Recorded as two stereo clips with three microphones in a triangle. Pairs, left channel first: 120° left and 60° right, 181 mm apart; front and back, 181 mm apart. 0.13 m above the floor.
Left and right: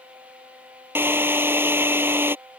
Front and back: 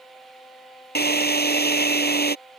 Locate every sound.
0.9 s a drill: 15° left